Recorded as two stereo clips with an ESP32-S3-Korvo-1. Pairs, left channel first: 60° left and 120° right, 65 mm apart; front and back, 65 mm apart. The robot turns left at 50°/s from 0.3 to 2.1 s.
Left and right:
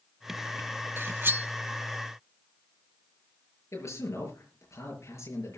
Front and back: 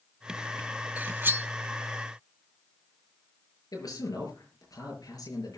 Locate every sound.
1.0 s cutlery clinking: 135° right, 0.5 m; by 1.5 s 160° right, 0.5 m
3.7 s a man speaking: 15° left, 6 m